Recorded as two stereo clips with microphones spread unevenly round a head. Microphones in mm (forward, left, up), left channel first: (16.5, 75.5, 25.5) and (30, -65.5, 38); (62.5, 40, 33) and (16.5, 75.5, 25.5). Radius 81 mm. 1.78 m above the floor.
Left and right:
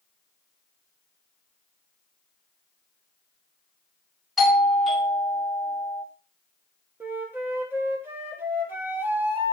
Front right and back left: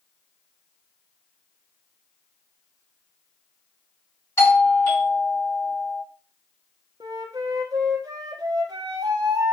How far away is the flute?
About 1.1 m.